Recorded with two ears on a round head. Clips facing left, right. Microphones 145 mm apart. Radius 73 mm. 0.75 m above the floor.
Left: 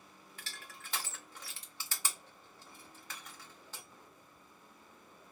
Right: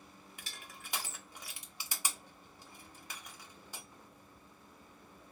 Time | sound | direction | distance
0.4 | crushing | 15° right (ahead or behind) | 0.6 m